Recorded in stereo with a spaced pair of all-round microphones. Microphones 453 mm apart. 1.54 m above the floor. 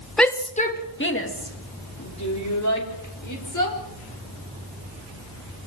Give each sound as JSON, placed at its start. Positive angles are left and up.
{"t": 0.2, "sound": "a shout", "side_deg": 0, "distance_m": 1.5}